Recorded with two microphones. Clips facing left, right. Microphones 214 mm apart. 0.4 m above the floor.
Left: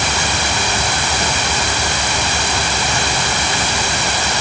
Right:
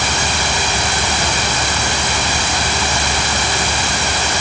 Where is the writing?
I don't hear writing.